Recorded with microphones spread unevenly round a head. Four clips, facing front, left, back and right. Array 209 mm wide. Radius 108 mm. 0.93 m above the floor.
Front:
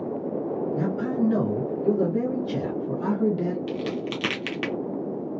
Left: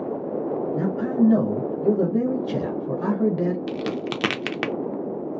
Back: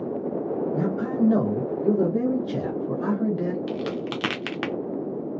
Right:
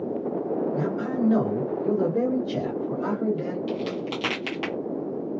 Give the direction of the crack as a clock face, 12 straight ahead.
9 o'clock.